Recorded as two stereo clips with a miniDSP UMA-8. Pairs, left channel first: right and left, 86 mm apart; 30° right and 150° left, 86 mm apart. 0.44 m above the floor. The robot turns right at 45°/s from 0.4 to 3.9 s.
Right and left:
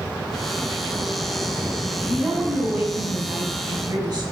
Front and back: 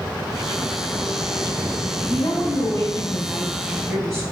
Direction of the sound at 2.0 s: 20° right.